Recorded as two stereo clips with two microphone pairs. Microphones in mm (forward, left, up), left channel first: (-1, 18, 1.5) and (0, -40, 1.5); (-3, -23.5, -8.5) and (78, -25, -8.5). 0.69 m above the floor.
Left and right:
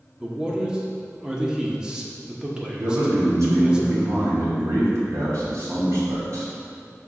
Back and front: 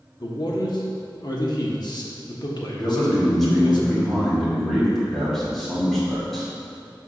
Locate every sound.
0.2 s a man speaking: 160° right, 1.1 m
2.8 s a man speaking: 95° right, 2 m